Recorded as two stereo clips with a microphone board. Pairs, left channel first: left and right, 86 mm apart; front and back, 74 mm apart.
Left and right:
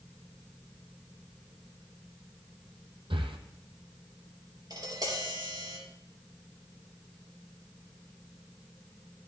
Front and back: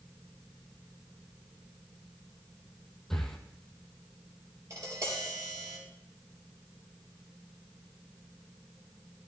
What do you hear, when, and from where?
3.1 s breathing: 85° right, 1.2 m
4.7 s tapping: 130° right, 4 m